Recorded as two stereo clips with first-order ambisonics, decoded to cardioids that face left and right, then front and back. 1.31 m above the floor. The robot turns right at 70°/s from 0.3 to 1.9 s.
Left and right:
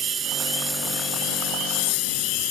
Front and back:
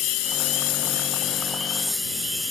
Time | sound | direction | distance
0.0 | a lawn mower | 25° right | ?